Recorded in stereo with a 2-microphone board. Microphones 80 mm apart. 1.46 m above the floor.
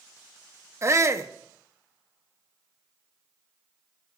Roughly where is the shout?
Right.